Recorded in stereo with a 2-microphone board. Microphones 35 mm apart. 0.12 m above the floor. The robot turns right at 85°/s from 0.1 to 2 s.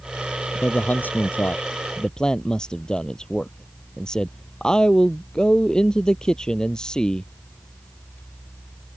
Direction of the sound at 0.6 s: 35° left.